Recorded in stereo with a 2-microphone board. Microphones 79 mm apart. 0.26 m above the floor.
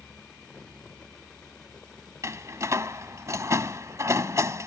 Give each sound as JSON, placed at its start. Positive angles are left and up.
{"t": 2.2, "sound": "a door slam", "side_deg": -40}